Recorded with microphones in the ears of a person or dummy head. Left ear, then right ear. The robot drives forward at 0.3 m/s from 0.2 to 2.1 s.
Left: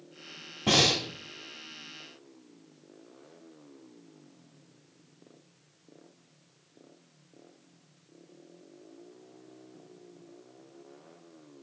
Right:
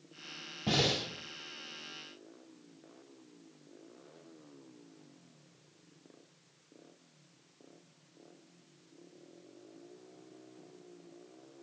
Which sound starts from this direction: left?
Breathing, at 0.7 s.